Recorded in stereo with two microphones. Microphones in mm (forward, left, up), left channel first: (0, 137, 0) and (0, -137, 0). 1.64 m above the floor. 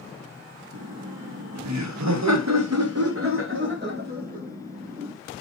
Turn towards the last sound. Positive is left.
turn(degrees=-20)  # may be behind; listen again after turning